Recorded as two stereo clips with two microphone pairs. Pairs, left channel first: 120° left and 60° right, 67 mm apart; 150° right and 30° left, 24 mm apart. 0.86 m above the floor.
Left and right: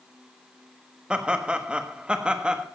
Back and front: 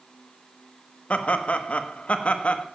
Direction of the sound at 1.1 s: 130° right.